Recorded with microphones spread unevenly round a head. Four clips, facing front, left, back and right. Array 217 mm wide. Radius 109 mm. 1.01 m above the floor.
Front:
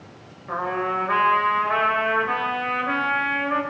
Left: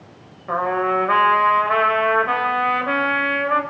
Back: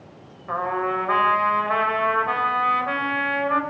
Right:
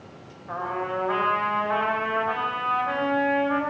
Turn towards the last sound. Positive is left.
turn(degrees=90)